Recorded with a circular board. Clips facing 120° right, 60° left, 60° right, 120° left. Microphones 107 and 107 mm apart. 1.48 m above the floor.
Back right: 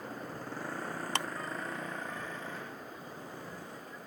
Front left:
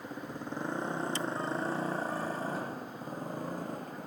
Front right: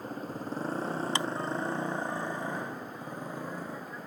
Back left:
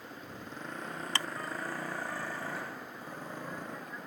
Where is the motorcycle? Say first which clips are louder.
Front left 1 dB, front right 8 dB; 15° right; by 4.1 s 25° left.